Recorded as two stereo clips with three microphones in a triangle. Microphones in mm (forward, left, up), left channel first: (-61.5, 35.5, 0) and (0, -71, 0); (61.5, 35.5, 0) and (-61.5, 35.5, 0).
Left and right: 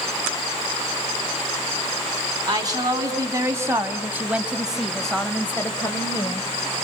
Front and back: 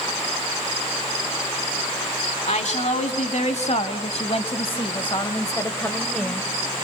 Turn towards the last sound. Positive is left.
turn(degrees=85)